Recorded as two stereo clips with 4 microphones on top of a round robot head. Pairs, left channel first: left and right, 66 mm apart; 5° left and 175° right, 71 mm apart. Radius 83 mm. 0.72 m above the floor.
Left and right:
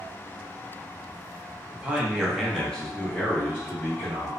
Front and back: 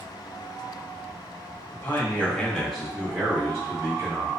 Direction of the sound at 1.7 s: 30° right.